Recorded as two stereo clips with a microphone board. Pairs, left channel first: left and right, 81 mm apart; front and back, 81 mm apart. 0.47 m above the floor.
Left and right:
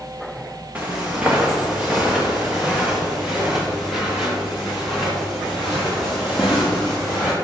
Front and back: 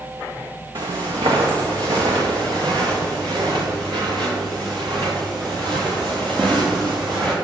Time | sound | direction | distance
0.8 | footsteps | 165° right | 2.5 m